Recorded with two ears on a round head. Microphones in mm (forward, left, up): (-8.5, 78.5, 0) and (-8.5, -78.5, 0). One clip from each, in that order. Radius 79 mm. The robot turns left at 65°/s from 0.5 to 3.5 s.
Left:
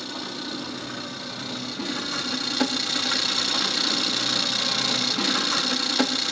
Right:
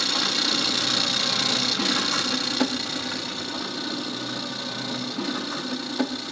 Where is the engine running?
55° right, 0.7 m; by 6.3 s 110° left, 0.7 m.